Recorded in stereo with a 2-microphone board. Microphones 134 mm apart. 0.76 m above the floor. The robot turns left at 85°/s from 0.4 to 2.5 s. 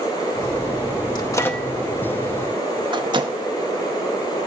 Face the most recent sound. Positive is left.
turn(degrees=-35)  # may be behind; listen again after turning